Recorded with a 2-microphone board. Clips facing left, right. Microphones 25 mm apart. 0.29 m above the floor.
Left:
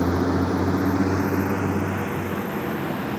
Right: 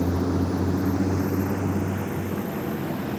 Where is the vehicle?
65° left (ahead or behind); by 3.2 s 35° left (ahead or behind).